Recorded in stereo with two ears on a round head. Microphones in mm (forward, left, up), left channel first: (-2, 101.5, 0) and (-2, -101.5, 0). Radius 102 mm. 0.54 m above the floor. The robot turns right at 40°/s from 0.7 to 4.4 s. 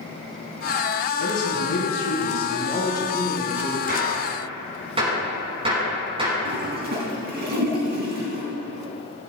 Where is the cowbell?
I don't hear a cowbell.